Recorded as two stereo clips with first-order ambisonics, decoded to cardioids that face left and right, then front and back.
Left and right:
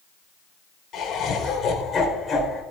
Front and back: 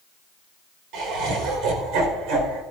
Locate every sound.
0.9 s laughter: 150° left, 4.5 m; by 2.6 s 165° left, 4.5 m